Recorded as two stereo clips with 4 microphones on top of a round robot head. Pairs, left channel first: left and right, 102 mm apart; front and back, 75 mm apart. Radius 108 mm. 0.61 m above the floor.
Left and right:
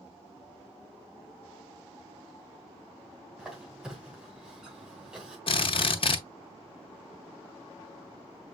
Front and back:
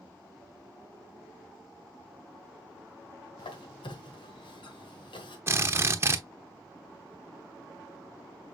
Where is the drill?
125° left, 1.0 m.